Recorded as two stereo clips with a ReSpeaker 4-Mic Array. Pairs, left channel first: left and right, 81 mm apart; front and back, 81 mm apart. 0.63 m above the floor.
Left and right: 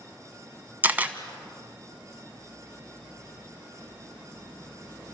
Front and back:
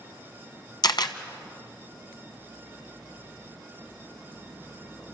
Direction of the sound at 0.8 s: 20° right.